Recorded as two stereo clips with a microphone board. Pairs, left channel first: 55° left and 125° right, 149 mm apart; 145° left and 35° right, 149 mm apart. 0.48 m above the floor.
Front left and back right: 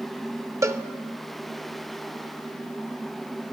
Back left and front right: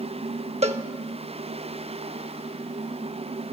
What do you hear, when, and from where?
0.6 s a cowbell: 60° right, 0.6 m